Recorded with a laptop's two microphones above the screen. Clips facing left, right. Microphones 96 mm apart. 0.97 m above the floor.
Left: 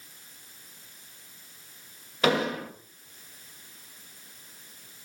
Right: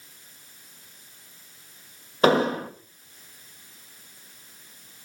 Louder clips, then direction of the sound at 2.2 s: Right 5 dB; 35° right (ahead or behind).